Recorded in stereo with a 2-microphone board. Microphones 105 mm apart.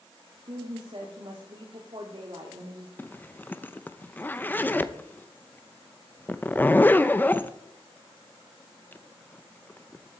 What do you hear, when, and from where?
0.5 s a woman speaking: 50° right (ahead or behind), 1.8 m
3.0 s a zipper: 20° left (ahead or behind), 0.5 m